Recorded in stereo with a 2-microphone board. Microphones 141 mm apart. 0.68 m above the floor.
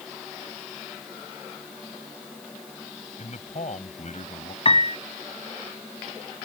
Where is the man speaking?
60° left (ahead or behind).